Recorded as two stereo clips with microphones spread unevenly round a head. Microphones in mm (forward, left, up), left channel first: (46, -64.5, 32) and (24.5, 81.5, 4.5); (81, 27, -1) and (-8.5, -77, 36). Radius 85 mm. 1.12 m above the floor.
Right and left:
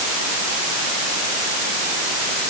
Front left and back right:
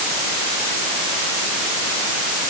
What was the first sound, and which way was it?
Only background noise.